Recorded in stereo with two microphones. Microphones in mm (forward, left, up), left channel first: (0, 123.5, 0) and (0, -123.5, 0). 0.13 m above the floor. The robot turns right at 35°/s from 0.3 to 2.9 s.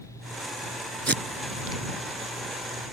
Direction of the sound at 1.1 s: 50° right (ahead or behind).